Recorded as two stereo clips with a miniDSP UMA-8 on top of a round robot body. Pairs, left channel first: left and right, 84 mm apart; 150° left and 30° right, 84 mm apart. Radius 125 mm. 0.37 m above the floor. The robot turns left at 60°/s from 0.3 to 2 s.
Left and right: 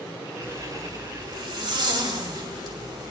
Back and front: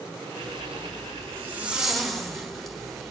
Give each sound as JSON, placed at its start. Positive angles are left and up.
{"t": 0.4, "sound": "a zipper", "azimuth_deg": -25, "distance_m": 3.5}